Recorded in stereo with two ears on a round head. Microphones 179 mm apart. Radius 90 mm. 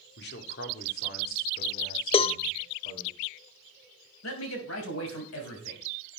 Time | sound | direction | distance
0.2 | a man speaking | 55° left (ahead or behind) | 1.9 m
2.1 | a cowbell | 30° left (ahead or behind) | 0.5 m
4.2 | a man speaking | 75° left (ahead or behind) | 3.5 m